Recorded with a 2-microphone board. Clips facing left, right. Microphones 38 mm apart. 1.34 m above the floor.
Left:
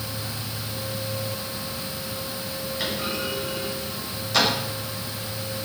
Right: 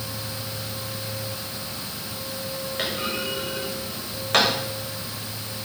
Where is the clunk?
60° right (ahead or behind), 6 m.